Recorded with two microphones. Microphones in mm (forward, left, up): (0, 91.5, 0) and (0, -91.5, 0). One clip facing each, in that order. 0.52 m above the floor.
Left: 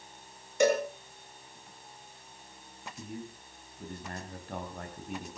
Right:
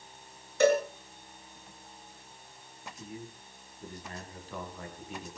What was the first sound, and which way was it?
A cowbell, 15° left (ahead or behind).